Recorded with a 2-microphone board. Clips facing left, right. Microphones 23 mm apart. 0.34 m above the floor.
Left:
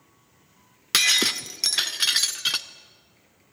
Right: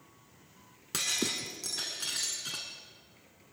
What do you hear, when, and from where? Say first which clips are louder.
0.9 s breaking glass: left 12 dB; 80° left, 0.8 m